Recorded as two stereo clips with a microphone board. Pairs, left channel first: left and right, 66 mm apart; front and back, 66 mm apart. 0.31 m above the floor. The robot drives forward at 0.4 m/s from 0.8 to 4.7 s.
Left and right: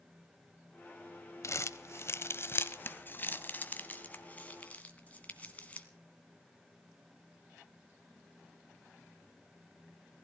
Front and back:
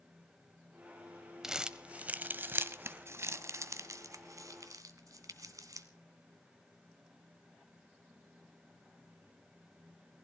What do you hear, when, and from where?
1.4 s crumpling: 100° left, 0.8 m; by 5.9 s 155° left, 1.6 m